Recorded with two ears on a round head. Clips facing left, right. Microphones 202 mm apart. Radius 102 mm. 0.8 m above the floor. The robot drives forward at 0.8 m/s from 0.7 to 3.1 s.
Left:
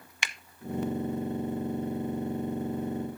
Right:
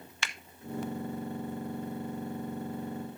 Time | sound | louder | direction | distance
0.2 | a finger snap | left 1 dB | 15° left (ahead or behind) | 0.5 m